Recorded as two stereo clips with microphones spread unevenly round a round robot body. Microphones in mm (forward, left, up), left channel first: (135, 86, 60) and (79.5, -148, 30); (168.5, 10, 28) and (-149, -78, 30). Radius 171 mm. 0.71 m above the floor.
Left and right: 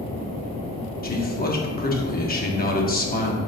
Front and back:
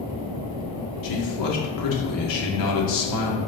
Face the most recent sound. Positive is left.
turn(degrees=25)